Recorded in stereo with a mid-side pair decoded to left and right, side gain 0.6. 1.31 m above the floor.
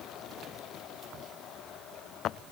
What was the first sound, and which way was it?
Only background noise.